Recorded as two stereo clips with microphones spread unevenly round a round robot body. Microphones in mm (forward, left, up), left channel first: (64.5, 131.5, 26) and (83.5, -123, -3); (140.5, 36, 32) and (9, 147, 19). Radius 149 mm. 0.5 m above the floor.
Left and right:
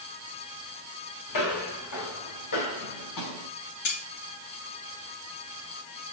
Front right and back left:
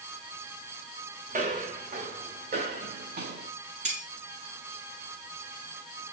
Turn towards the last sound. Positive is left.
turn(degrees=95)